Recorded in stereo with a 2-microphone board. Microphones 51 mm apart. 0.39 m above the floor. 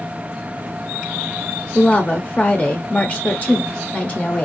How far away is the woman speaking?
About 0.8 m.